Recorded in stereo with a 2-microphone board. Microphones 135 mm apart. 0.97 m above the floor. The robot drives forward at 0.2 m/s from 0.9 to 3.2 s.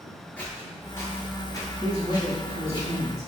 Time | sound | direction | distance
0.4 | footsteps | 15° left (ahead or behind) | 1.1 m
1.8 | a man speaking | 45° right (ahead or behind) | 1.9 m